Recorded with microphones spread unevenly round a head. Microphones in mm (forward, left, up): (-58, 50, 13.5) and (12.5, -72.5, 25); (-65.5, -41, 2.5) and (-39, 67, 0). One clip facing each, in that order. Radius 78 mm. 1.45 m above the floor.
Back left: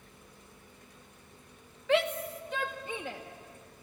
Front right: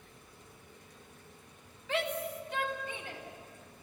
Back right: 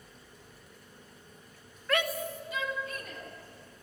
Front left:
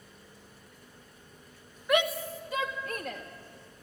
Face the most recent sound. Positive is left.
turn(degrees=115)